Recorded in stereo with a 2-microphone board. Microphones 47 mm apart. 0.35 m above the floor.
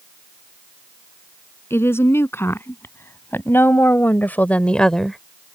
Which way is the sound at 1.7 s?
65° left (ahead or behind).